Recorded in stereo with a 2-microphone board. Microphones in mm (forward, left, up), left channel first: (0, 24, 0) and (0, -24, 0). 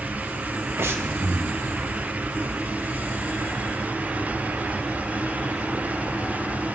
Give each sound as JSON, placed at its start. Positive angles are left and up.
{"t": 0.8, "sound": "breathing", "side_deg": -55, "distance_m": 0.9}